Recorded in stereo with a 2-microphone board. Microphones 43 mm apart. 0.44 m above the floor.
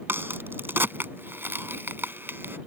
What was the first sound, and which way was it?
A crack, 55° right (ahead or behind).